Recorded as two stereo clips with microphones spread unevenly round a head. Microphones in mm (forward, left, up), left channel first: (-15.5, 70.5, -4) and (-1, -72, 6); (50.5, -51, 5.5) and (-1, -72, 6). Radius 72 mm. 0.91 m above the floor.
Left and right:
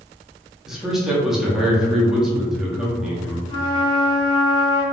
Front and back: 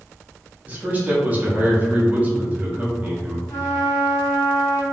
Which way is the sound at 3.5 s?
40° left.